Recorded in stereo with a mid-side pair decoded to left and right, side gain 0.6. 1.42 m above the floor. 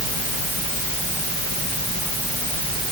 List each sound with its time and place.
Only background noise.